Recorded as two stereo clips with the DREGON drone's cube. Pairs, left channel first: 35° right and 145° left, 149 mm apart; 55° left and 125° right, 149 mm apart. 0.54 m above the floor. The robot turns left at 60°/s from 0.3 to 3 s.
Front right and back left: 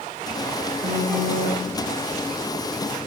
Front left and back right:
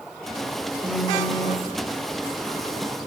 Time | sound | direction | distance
0.8 | a phone buzzing | 160° left | 1.6 m